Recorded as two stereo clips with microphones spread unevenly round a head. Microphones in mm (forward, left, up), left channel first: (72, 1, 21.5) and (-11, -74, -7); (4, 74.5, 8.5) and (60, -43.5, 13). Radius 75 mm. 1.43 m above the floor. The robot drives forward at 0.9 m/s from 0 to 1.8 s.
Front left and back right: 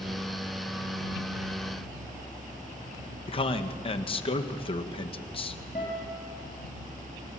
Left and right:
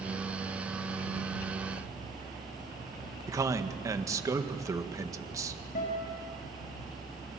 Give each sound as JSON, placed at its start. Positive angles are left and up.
{"t": 3.3, "sound": "a man speaking", "azimuth_deg": 0, "distance_m": 1.8}
{"t": 5.8, "sound": "a guitar", "azimuth_deg": 90, "distance_m": 4.0}